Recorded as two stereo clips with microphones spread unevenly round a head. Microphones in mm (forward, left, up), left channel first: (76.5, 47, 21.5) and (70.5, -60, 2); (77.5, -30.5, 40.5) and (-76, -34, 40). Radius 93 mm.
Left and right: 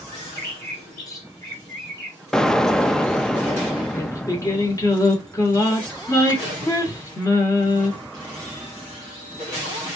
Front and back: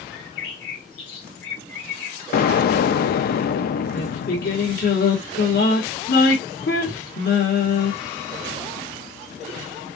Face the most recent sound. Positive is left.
turn(degrees=40)